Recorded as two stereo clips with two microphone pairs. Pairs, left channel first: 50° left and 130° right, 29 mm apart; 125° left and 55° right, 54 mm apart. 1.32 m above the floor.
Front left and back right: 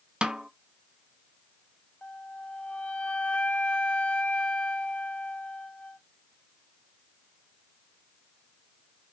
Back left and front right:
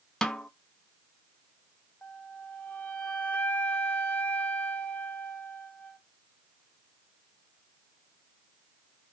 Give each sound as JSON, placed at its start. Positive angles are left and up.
{"t": 0.2, "sound": "a snare drum", "azimuth_deg": -160, "distance_m": 0.7}
{"t": 2.0, "sound": "a flute", "azimuth_deg": 65, "distance_m": 1.0}